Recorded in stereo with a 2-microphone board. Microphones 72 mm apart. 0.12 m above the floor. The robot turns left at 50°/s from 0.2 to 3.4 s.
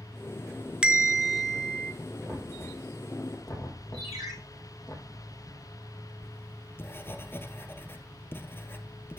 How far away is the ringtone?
About 6.5 m.